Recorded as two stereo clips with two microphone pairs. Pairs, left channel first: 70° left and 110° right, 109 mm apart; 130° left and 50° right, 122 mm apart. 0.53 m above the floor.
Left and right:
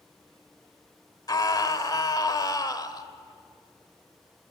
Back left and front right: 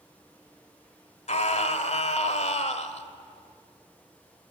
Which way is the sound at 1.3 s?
120° left.